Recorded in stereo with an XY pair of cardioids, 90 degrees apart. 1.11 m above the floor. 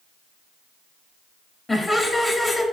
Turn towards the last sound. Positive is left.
turn(degrees=20)